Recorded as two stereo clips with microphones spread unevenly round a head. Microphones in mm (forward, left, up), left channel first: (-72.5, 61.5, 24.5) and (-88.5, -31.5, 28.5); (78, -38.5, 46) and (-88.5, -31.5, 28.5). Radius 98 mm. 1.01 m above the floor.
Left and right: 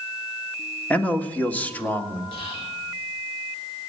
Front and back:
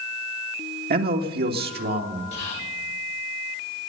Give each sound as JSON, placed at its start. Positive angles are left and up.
{"t": 0.9, "sound": "a man speaking", "azimuth_deg": 155, "distance_m": 1.9}
{"t": 2.3, "sound": "whispering", "azimuth_deg": 50, "distance_m": 1.7}